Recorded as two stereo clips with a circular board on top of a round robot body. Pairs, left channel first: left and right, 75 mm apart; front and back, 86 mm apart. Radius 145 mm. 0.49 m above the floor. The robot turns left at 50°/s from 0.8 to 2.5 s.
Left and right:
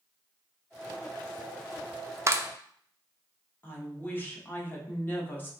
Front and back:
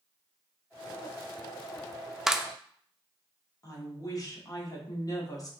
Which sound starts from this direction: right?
A clap, at 2.3 s.